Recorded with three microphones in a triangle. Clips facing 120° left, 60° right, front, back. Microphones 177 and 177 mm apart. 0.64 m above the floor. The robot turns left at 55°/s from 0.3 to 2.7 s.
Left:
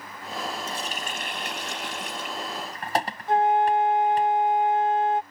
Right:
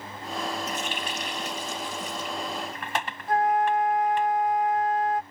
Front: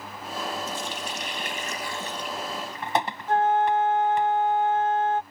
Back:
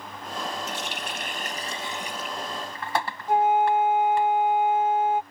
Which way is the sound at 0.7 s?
Straight behind.